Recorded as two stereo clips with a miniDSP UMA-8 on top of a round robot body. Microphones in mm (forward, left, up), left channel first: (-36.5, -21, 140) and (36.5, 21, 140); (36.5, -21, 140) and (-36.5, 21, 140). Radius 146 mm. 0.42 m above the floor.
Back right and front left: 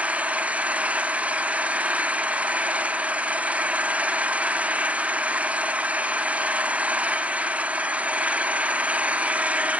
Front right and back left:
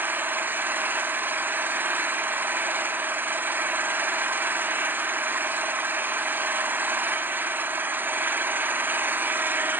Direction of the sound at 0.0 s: 95° left.